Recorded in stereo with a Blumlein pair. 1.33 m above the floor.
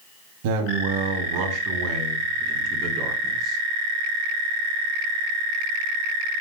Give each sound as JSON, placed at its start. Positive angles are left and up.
{"t": 0.4, "sound": "a man speaking", "azimuth_deg": -50, "distance_m": 3.0}